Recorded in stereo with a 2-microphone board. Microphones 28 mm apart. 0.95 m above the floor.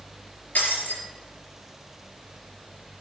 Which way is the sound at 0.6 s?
65° left (ahead or behind).